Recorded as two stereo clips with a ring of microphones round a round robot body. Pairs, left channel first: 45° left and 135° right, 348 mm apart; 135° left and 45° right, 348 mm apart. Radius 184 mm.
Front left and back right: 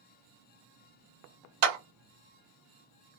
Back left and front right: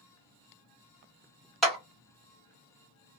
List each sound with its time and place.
1.6 s a clap: 135° right, 1.2 m